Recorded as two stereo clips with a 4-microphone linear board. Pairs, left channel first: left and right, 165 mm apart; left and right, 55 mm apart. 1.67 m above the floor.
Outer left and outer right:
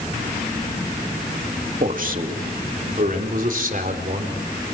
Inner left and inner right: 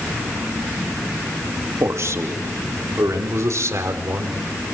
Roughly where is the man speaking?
Right.